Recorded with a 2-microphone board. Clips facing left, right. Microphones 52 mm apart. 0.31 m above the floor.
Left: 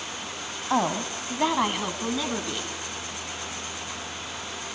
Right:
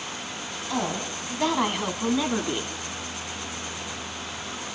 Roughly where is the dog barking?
No dog barking in this recording.